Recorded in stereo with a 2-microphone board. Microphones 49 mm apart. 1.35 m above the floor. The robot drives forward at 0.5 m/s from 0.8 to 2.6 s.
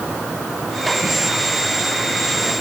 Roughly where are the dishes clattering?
No dishes clattering in this recording.